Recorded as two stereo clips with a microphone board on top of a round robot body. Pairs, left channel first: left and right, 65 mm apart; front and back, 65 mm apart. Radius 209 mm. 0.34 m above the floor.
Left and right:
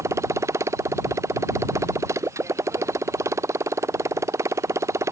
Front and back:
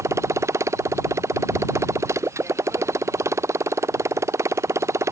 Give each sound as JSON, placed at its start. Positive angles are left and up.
{"t": 0.0, "sound": "a motorcycle", "azimuth_deg": -135}